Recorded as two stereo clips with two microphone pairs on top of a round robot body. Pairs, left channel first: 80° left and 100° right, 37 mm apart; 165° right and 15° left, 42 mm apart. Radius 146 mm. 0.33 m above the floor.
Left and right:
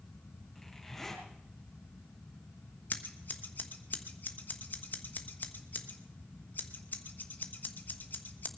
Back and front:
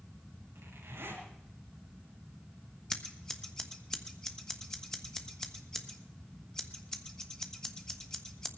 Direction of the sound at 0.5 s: 5° right.